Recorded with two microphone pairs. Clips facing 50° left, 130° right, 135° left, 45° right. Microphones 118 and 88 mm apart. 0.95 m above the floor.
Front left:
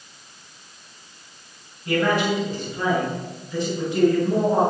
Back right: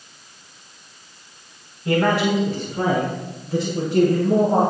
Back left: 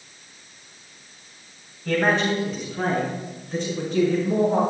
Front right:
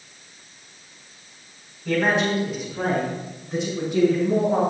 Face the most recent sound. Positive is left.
turn(degrees=-120)